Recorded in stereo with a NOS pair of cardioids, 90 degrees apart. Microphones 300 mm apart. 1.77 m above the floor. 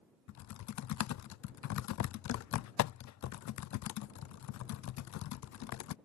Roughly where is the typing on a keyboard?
Ahead left.